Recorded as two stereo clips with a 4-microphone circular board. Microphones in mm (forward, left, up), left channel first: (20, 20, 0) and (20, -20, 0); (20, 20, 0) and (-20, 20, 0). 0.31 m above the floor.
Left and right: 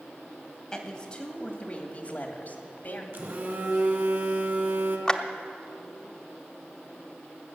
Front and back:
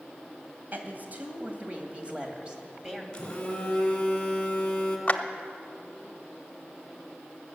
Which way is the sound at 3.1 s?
65° right.